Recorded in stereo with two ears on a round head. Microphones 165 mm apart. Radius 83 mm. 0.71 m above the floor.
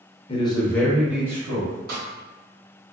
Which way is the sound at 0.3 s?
30° left (ahead or behind).